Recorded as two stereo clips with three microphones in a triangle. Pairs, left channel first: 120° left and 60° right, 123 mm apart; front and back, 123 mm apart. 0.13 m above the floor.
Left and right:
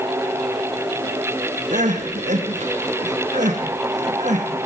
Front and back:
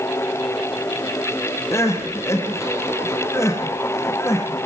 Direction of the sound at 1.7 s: 70° right.